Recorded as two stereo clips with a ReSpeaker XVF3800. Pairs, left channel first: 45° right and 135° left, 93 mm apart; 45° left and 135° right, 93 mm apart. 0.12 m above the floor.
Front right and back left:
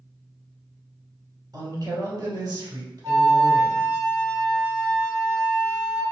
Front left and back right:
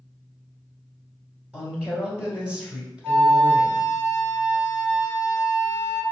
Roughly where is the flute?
Left.